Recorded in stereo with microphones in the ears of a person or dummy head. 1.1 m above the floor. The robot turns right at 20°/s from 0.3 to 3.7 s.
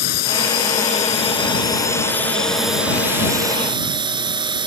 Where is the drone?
45° left (ahead or behind); by 4.7 s 25° right (ahead or behind).